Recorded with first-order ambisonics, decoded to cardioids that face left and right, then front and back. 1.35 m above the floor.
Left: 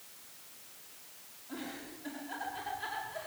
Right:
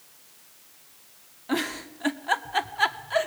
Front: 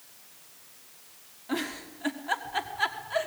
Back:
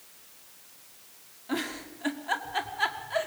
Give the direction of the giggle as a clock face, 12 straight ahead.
3 o'clock.